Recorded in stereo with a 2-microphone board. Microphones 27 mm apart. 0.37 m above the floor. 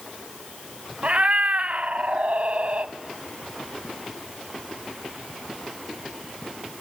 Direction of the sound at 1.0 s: 50° right (ahead or behind).